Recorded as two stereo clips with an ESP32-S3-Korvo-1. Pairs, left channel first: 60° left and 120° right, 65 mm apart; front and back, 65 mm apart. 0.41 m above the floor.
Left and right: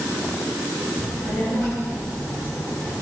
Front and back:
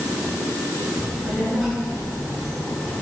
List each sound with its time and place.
1.0 s a child speaking: 85° left, 6 m; by 3.0 s 90° left, 3.5 m